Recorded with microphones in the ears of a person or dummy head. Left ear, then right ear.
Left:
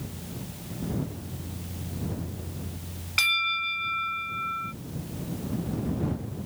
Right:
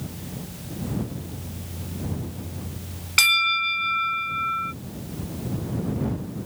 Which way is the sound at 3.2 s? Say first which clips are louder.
Right 5 dB; 15° right (ahead or behind).